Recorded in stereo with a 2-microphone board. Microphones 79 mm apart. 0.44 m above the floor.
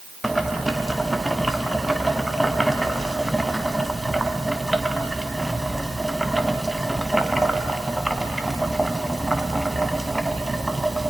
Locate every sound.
0.2 s boiling: centre (ahead or behind), 1.6 m